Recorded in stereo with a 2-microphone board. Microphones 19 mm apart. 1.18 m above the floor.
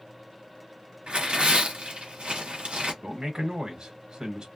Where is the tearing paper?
65° right (ahead or behind), 1.1 m.